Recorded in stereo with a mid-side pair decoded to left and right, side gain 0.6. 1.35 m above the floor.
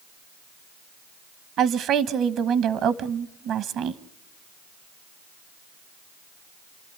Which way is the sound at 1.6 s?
60° right.